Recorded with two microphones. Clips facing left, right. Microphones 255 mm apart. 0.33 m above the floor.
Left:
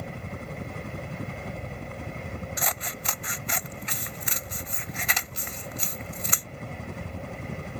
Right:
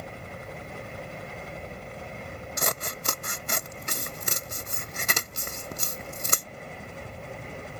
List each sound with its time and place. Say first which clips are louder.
0.0 s a helicopter: left 3 dB; 55° left (ahead or behind); by 7.8 s 65° left (ahead or behind)
2.6 s scissors: right 2 dB; 50° right (ahead or behind)